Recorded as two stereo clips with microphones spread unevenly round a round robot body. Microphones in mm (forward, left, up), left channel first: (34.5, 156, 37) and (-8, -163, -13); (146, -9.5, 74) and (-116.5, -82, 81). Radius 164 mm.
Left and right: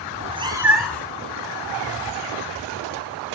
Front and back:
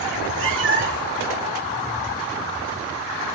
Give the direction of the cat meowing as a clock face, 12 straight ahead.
5 o'clock.